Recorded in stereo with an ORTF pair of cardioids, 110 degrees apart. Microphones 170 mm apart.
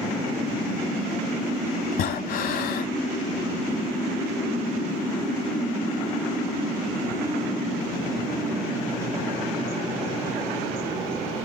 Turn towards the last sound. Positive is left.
turn(degrees=65)